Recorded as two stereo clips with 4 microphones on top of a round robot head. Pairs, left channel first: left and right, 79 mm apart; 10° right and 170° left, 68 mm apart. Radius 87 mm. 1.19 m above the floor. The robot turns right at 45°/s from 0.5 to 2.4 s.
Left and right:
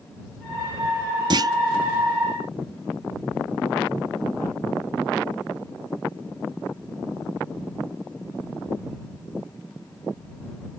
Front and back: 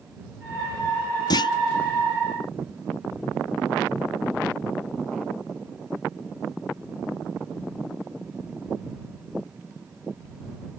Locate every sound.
1.3 s a clunk: 50° right; by 1.5 s 35° right